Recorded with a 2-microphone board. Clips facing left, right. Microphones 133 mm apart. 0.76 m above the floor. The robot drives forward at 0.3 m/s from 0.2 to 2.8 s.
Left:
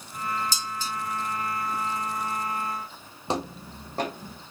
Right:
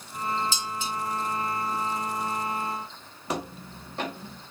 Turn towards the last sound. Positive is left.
turn(degrees=45)  # may be behind; listen again after turning